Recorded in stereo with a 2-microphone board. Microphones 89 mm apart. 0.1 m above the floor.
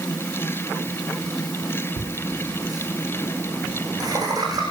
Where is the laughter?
40° right (ahead or behind), 6 m.